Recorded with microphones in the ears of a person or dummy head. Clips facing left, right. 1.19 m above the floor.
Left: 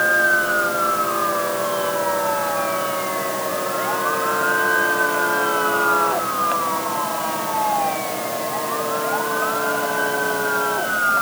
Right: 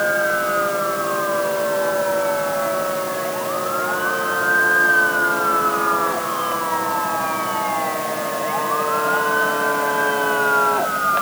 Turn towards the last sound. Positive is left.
No sound to turn to.